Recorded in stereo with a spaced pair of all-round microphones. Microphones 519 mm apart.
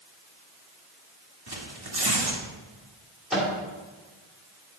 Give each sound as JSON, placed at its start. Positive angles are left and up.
{"t": 1.5, "sound": "tearing paper", "side_deg": -45, "distance_m": 1.6}
{"t": 3.3, "sound": "a microwave", "side_deg": 0, "distance_m": 2.5}